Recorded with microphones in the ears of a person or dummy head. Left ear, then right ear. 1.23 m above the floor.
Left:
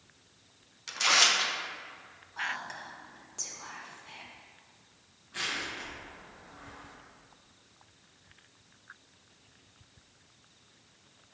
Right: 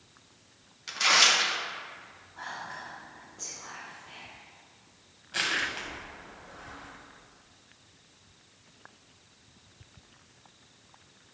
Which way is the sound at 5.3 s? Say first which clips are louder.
Right 5 dB; 45° right (ahead or behind).